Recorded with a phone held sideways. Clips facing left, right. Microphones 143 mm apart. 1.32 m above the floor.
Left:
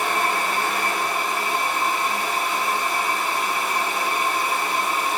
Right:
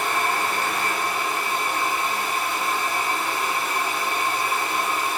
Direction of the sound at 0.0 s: 65° left (ahead or behind).